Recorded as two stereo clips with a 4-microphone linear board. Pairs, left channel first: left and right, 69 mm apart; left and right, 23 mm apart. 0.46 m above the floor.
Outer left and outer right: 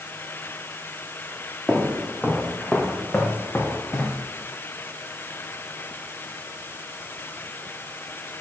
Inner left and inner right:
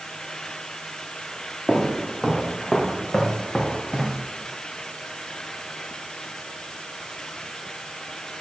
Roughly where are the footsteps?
Centre.